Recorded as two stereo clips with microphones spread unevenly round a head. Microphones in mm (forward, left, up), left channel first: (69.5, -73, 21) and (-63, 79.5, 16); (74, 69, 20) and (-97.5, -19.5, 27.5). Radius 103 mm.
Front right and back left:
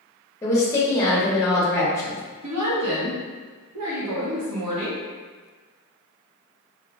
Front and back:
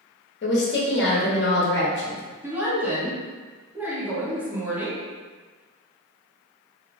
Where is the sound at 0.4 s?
25° left, 0.7 m.